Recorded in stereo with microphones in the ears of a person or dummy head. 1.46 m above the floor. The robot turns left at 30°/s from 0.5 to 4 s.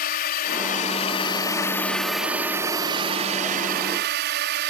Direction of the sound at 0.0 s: 45° left.